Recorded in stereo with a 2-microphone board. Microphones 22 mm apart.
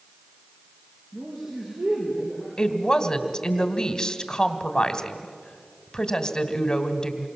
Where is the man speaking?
65° right (ahead or behind), 6.5 m.